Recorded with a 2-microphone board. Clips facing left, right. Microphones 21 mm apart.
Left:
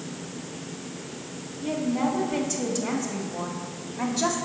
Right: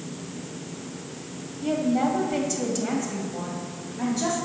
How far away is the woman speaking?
About 1.8 m.